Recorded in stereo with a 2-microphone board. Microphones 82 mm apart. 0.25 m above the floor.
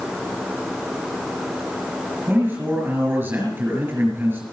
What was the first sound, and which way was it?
A man speaking, 25° right (ahead or behind).